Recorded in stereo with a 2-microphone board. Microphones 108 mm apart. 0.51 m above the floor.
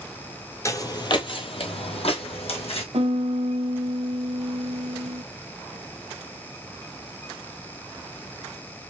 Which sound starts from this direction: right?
A piano, at 2.9 s.